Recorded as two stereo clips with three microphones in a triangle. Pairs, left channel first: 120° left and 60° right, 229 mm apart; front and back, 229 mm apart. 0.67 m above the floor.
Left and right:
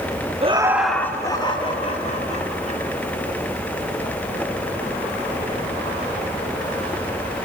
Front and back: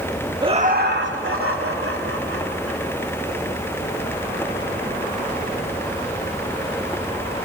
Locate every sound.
0.4 s laughter: 115° right, 1.1 m; by 2.8 s 175° left, 4 m